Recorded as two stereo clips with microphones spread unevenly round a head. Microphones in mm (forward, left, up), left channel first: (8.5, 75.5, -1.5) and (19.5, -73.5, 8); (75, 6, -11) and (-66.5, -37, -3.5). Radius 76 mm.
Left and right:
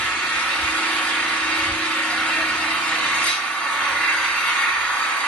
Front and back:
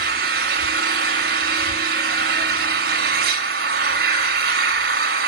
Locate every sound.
0.0 s an engine running: straight behind, 4.5 m